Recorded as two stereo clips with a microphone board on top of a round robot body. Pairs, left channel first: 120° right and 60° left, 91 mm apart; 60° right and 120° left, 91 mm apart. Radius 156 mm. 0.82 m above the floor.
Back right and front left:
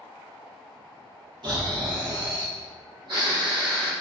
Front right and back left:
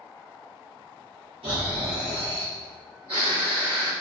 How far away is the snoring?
About 1.3 m.